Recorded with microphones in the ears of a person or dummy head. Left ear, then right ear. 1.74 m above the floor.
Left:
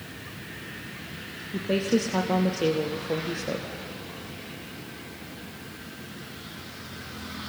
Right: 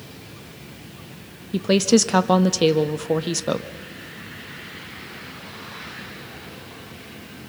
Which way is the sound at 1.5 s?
55° right (ahead or behind).